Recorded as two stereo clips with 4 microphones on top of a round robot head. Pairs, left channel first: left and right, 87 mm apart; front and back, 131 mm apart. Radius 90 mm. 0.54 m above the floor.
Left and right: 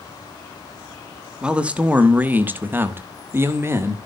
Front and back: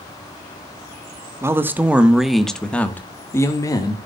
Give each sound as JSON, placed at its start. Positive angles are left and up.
{"t": 1.4, "sound": "a man speaking", "azimuth_deg": -155, "distance_m": 1.3}